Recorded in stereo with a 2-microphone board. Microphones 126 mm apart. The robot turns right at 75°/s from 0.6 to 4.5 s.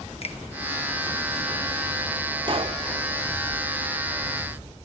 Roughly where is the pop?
Right.